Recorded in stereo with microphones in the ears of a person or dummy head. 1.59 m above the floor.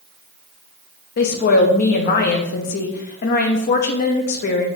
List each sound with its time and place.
1.2 s a woman speaking: 50° left (ahead or behind), 0.5 m